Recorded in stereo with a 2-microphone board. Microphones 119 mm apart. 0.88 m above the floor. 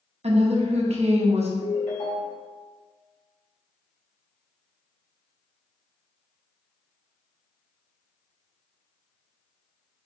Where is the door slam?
I don't hear a door slam.